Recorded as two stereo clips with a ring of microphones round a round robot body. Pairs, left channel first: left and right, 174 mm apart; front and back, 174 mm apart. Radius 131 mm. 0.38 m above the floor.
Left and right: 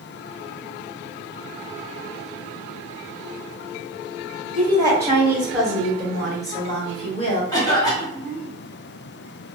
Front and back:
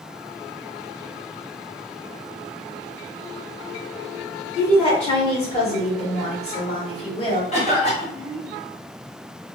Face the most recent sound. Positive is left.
turn(degrees=30)